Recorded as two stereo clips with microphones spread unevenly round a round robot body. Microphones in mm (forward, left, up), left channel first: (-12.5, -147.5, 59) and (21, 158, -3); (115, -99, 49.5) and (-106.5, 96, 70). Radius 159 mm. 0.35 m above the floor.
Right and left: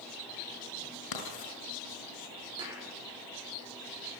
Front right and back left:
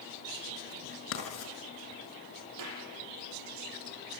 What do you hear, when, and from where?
1.1 s writing: 80° right, 7 m
2.6 s a clap: 155° left, 9.5 m